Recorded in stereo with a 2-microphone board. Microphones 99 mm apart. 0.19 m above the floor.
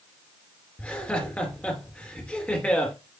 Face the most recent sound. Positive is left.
turn(degrees=15)  # may be behind; listen again after turning